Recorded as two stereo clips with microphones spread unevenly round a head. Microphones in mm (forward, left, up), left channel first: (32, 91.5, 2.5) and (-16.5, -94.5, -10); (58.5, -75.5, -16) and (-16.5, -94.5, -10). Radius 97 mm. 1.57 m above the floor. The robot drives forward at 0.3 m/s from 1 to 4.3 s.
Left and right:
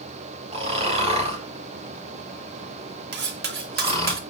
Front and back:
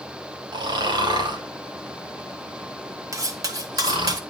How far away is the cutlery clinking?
About 1.4 m.